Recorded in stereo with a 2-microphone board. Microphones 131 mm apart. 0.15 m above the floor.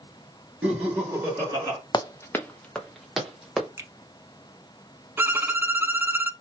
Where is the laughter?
10° right (ahead or behind), 2 m; by 1.8 s 25° right (ahead or behind), 1.7 m.